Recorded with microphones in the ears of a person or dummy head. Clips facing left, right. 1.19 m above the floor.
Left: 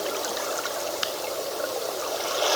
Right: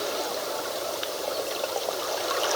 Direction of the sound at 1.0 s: 65° left (ahead or behind).